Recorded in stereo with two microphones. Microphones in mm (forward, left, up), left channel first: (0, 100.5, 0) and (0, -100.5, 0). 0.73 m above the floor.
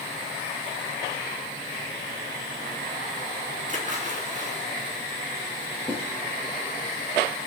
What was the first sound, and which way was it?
A splash, 40° right (ahead or behind).